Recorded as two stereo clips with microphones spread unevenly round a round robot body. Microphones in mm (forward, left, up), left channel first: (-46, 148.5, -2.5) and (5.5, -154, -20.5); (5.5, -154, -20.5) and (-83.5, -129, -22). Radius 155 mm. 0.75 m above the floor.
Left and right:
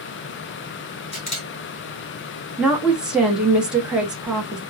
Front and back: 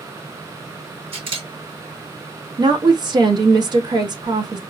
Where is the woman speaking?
165° right, 0.9 m.